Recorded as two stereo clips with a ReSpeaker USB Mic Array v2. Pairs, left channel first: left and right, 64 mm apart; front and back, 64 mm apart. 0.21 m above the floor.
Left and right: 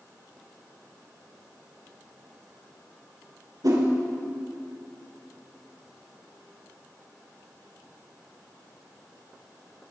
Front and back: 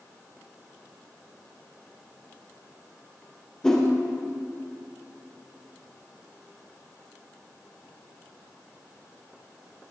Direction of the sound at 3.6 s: 80° right.